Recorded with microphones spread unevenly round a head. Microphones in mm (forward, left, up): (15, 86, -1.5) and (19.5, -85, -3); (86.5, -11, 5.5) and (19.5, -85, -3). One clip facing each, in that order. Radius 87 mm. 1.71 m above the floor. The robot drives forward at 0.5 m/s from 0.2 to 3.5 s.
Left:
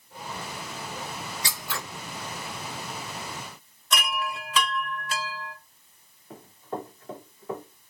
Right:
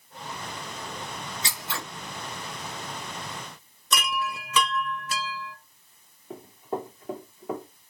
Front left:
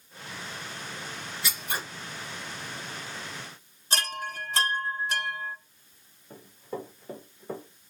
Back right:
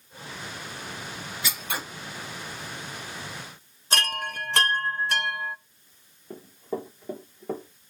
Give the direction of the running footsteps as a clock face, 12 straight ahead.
5 o'clock.